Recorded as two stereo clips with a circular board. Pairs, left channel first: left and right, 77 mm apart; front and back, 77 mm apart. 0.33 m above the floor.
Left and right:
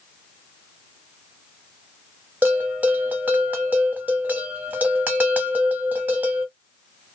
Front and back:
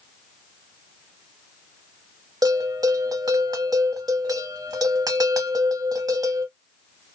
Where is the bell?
155° right, 0.7 m.